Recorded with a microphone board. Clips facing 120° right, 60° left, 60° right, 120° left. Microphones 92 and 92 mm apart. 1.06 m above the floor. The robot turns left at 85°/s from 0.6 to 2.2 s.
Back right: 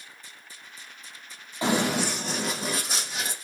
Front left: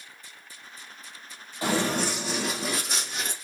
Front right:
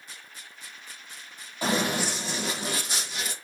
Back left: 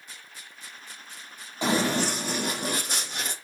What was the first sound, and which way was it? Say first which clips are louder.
Running footsteps: back right 1 dB, back left 2 dB; straight behind.